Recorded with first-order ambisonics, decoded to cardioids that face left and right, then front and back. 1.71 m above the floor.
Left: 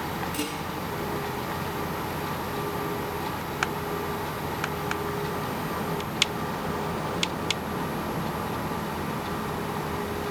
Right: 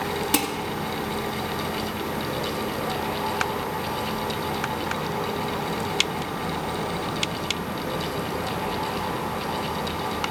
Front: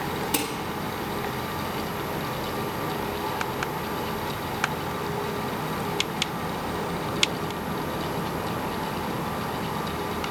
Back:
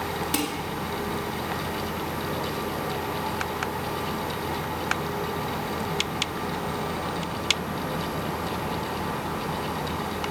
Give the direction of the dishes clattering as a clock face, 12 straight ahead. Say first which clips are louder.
Right 7 dB, even; 3 o'clock.